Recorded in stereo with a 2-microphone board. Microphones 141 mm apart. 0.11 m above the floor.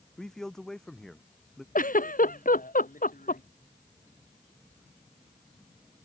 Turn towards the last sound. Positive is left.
turn(degrees=75)  # may be behind; listen again after turning